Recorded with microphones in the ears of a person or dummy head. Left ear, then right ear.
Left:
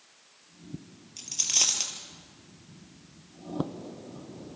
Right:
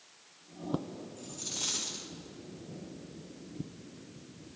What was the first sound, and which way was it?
A dropped coin, 65° left (ahead or behind).